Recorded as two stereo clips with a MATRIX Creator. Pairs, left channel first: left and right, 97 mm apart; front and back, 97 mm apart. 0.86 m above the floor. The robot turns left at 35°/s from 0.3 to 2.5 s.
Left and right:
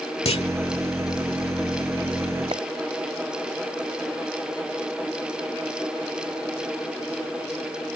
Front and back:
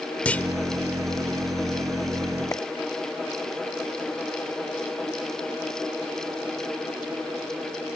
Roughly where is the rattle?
No rattle in this recording.